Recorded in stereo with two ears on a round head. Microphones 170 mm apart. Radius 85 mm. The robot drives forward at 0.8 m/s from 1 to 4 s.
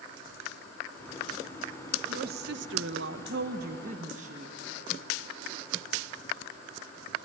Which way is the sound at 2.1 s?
50° right (ahead or behind).